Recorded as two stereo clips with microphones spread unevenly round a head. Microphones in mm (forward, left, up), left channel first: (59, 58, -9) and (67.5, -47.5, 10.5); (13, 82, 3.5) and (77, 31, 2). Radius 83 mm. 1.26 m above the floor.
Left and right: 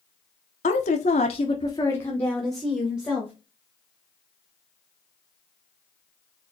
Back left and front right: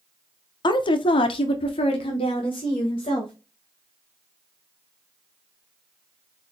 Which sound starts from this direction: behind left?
A woman speaking, at 0.6 s.